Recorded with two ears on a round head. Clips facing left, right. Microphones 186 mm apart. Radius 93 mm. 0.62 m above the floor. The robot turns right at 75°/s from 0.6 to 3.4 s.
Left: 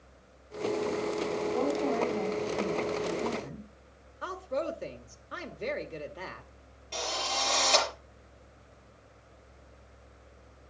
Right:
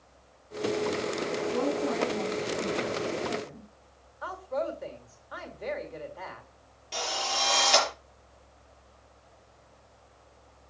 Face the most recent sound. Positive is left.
turn(degrees=-10)  # may be behind; listen again after turning